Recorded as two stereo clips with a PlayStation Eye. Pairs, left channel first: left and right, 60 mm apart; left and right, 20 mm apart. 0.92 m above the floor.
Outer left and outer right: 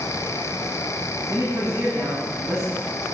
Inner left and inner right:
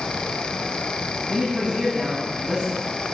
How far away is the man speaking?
About 7 m.